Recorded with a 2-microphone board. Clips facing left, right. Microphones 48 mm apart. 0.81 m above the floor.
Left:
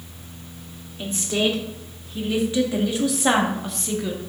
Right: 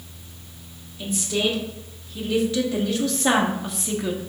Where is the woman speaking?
35° left (ahead or behind), 2 m; by 4.2 s 15° right (ahead or behind), 1.0 m.